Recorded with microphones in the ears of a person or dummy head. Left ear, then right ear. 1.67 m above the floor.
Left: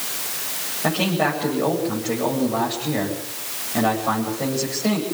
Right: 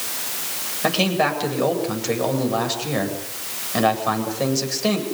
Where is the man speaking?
80° right, 8.5 m.